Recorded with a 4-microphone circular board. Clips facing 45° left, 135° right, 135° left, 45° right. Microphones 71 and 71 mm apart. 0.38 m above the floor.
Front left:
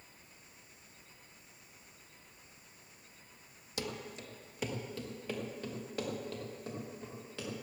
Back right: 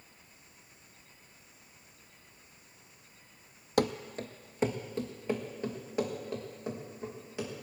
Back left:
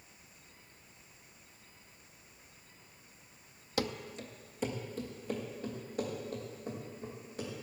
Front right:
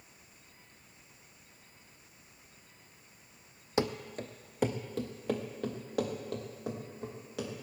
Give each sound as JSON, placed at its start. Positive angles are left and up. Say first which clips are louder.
{"t": 3.8, "sound": "running footsteps", "louder": "back right 12 dB, front right 4 dB", "azimuth_deg": -110, "distance_m": 0.7}